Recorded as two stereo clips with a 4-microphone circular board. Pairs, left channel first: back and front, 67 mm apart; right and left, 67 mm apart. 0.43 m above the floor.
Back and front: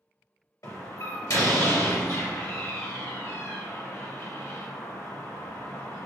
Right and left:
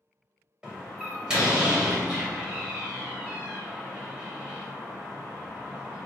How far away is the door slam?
About 1.3 m.